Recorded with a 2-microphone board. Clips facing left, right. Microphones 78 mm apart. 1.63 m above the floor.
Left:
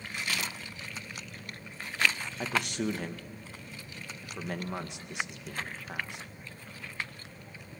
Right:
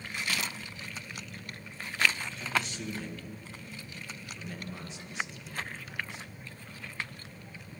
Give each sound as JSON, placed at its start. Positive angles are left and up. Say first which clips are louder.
{"t": 2.4, "sound": "a man speaking", "louder": "left 3 dB", "side_deg": 65, "distance_m": 2.0}